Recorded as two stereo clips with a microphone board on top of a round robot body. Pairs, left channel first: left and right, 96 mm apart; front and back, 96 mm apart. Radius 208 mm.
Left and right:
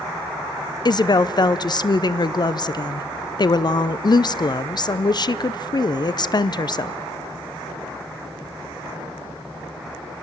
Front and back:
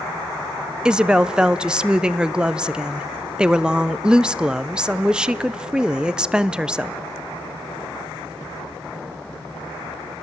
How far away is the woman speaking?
About 0.8 m.